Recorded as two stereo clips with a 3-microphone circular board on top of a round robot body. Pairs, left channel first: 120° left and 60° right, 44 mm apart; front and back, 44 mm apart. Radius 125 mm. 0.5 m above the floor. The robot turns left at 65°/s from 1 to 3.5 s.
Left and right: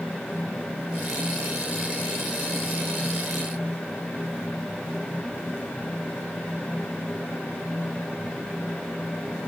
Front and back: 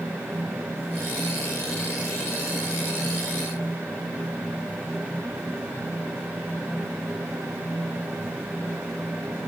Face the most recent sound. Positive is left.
No sound to turn to.